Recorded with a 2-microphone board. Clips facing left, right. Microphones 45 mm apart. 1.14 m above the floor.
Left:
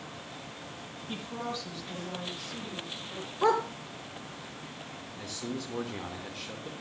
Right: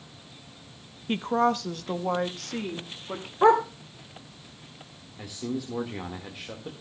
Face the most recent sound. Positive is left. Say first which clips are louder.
# right 5 dB
turn(degrees=-10)  # may be behind; listen again after turning